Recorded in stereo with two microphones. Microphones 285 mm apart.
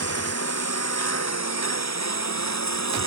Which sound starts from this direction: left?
A lawn mower, at 0.0 s.